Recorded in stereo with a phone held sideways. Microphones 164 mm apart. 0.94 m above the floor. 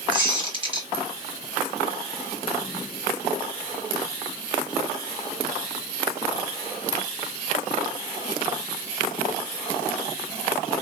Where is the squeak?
30° right (ahead or behind), 1.2 m.